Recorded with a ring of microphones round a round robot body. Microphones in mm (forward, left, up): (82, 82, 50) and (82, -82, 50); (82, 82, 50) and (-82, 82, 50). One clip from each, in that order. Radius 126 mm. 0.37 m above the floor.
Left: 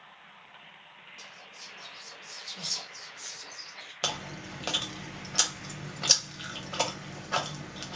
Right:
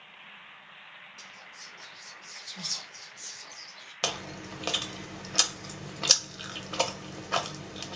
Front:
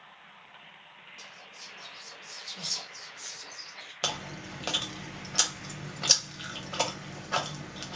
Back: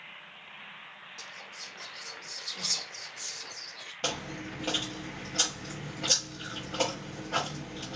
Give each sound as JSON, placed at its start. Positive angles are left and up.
{"t": 1.2, "sound": "whispering", "azimuth_deg": -160, "distance_m": 0.8}
{"t": 4.0, "sound": "chewing", "azimuth_deg": -25, "distance_m": 0.7}